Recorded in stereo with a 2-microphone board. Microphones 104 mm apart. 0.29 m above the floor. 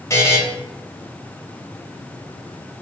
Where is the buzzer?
30° left (ahead or behind), 0.7 m.